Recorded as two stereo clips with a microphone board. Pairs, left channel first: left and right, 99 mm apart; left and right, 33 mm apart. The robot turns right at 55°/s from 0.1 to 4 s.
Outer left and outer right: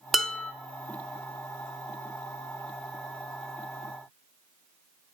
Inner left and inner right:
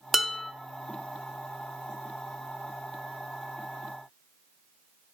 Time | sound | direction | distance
0.1 | dishes clattering | centre (ahead or behind) | 0.5 m